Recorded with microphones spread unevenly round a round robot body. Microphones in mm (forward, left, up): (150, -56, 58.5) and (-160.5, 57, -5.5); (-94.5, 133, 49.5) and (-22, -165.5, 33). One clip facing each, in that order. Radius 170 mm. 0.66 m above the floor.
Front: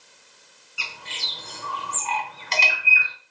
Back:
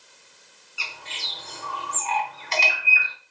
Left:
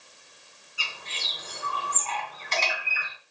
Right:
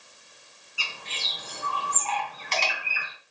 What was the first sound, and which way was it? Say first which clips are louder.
A bird: front 1 dB, right 1 dB; 15° right.